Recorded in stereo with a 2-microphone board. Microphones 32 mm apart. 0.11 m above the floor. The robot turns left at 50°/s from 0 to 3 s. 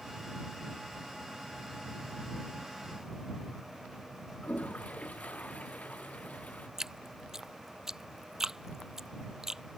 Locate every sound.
4.4 s a toilet flushing: 50° left (ahead or behind)
6.8 s dripping: 15° right (ahead or behind)